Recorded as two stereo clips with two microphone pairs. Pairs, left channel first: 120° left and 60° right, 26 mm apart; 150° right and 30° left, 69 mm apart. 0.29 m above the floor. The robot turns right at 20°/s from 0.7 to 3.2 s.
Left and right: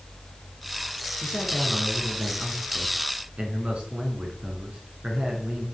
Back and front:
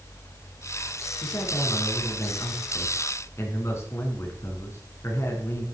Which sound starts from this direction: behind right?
A man speaking, at 1.2 s.